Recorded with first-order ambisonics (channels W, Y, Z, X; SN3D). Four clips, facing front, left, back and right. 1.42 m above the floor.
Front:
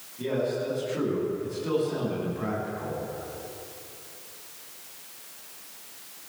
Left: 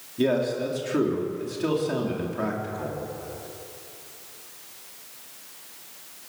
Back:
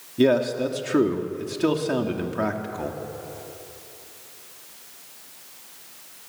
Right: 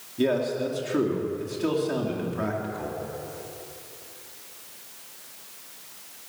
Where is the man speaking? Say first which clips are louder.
Left 1 dB, back 8 dB; straight behind, 3.5 m.